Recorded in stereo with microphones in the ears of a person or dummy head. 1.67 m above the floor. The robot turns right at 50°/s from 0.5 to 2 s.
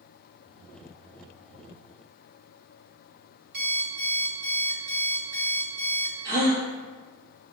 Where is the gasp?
55° right (ahead or behind), 2 m.